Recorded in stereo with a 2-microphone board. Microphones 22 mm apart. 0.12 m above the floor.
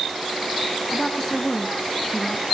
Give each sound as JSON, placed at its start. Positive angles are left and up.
{"t": 0.9, "sound": "a woman speaking", "side_deg": 20, "distance_m": 1.2}